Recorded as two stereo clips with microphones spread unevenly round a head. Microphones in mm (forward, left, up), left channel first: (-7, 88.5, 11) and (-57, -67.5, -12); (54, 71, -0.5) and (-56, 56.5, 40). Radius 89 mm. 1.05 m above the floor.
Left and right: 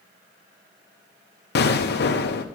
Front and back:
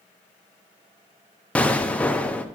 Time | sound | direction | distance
1.6 | an explosion | 90° left | 0.8 m